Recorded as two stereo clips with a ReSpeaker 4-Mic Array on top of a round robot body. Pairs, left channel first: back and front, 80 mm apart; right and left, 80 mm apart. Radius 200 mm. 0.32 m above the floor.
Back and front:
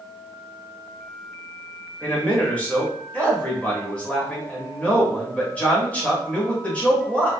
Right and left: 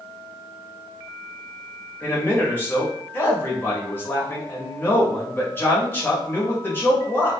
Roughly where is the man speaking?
Behind right.